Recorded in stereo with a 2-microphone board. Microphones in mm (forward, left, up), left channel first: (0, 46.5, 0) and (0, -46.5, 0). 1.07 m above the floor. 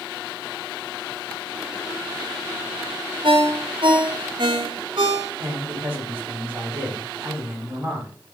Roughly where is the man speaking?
Right.